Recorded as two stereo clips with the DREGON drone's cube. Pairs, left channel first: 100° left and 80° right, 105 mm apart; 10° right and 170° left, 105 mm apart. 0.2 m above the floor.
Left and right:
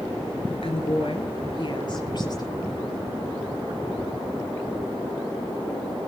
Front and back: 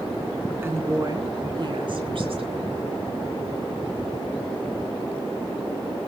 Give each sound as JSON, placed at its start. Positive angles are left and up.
{"t": 0.6, "sound": "a woman speaking", "azimuth_deg": 105, "distance_m": 3.0}